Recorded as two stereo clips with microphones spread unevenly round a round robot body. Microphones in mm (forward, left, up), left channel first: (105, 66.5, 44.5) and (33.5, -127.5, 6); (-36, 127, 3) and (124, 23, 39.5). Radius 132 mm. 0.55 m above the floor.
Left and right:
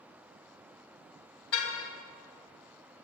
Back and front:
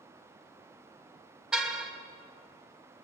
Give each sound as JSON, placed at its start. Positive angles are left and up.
{"t": 1.5, "sound": "a car horn", "azimuth_deg": 55, "distance_m": 2.0}